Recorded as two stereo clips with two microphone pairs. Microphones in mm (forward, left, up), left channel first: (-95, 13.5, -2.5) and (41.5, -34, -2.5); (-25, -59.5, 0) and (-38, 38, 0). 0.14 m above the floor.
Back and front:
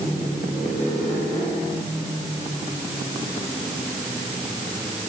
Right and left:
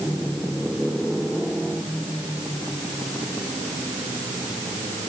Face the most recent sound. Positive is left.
No sound to turn to.